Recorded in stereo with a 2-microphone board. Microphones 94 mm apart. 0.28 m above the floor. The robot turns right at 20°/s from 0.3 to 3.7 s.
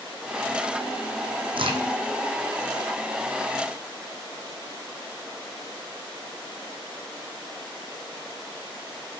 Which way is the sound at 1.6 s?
65° right (ahead or behind).